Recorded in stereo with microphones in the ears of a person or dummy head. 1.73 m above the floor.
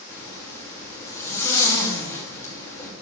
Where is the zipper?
10° left (ahead or behind), 3 m.